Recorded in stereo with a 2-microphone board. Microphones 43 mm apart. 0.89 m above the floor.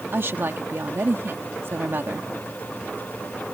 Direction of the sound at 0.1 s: 65° right (ahead or behind).